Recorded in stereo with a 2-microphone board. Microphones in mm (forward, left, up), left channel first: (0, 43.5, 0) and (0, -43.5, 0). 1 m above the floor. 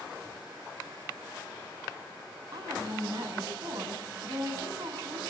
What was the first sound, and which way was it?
A woman speaking, 50° right (ahead or behind).